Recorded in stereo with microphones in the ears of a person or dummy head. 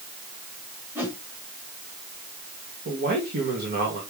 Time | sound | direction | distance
0.9 | a whoosh | 10° right (ahead or behind) | 2.5 m
2.9 | a man speaking | 45° right (ahead or behind) | 2.5 m